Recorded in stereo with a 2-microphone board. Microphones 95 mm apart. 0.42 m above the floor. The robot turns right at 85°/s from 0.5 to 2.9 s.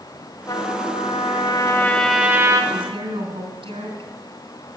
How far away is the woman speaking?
About 3.5 m.